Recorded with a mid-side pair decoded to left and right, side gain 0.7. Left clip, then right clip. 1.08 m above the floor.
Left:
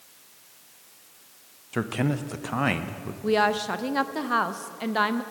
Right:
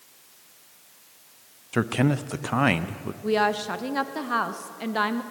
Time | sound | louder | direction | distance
1.7 | a man speaking | right 3 dB | 20° right | 0.5 m
3.2 | a woman speaking | left 1 dB | 5° left | 0.7 m